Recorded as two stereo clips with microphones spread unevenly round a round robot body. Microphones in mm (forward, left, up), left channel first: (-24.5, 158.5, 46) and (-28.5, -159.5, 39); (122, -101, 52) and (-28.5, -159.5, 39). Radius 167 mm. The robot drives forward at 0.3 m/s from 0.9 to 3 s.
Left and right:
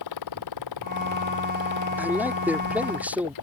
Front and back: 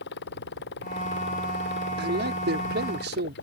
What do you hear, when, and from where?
0.0 s a motorcycle: 55° left
2.0 s a man speaking: 175° right